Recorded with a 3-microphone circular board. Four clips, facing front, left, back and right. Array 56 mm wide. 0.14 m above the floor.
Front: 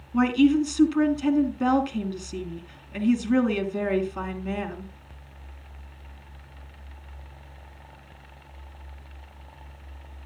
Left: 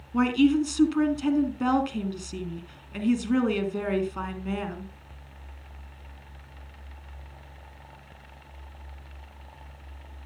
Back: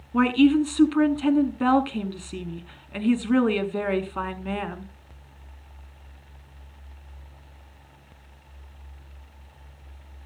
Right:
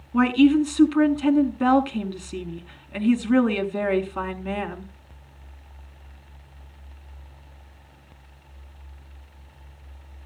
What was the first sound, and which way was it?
A woman speaking, 140° right.